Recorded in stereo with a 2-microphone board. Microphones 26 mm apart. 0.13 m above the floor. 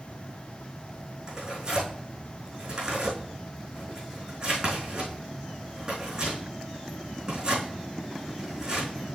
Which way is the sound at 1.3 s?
35° right (ahead or behind).